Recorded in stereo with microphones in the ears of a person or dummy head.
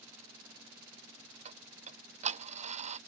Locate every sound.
1.4 s ticking: 30° right (ahead or behind)